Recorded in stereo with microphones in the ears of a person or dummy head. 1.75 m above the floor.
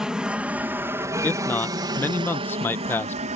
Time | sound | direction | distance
0.0 | an aircraft | 5° right (ahead or behind) | ?
1.2 | a man speaking | 10° left (ahead or behind) | ?